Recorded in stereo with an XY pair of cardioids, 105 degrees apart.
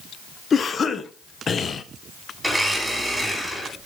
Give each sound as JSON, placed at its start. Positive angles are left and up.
{"t": 0.5, "sound": "a cough", "azimuth_deg": 40, "distance_m": 0.8}
{"t": 2.4, "sound": "a blender", "azimuth_deg": -5, "distance_m": 3.0}